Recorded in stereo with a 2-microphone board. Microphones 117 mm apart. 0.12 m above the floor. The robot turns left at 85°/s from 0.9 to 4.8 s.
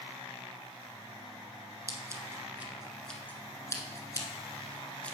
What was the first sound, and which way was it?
Scissors, 30° right (ahead or behind).